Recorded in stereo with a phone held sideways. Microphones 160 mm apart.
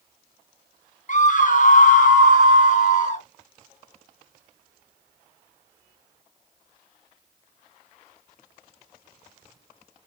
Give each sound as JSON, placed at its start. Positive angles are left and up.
{"t": 1.1, "sound": "a scream", "side_deg": 50, "distance_m": 0.9}